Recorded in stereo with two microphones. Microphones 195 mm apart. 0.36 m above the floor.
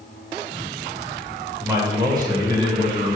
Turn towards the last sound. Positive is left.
turn(degrees=-30)  # may be behind; listen again after turning